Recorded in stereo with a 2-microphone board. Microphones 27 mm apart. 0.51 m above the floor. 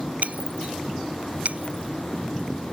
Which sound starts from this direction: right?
Breaking glass, at 0.2 s.